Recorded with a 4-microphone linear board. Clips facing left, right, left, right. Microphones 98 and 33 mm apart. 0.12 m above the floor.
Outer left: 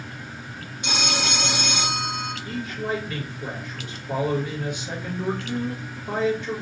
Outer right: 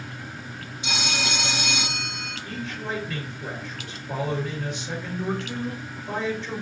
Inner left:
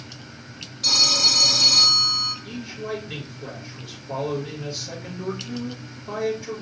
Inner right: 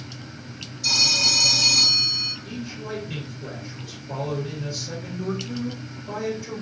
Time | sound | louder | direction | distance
0.8 | a phone ringing | outer left 2 dB, inner left 2 dB | 60° left (ahead or behind) | 2.5 m
2.5 | a man speaking | outer left 3 dB, inner left 2 dB | 15° left (ahead or behind) | 2.5 m